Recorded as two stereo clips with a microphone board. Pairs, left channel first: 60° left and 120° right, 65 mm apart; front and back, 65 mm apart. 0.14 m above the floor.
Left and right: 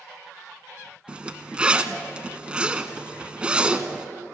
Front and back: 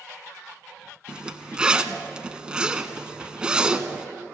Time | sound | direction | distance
1.1 | a zipper | 140° right | 0.9 m